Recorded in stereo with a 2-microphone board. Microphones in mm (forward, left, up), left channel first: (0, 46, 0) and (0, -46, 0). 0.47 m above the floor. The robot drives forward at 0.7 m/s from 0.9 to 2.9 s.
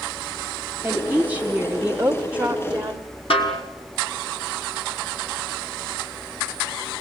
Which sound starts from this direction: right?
A woman speaking, at 0.8 s.